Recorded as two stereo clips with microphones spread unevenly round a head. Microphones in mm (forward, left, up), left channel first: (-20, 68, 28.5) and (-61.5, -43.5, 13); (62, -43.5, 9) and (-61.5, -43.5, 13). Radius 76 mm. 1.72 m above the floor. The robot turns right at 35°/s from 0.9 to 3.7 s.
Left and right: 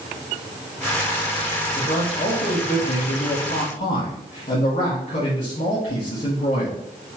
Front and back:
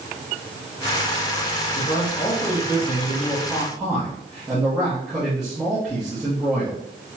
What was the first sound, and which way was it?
A man speaking, 35° left.